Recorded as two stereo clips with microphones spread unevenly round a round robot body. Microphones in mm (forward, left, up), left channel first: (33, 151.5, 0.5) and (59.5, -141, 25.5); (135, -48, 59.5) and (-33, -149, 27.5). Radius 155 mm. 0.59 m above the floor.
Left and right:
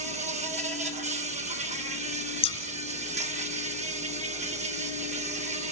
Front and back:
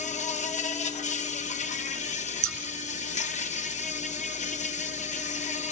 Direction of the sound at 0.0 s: 20° right.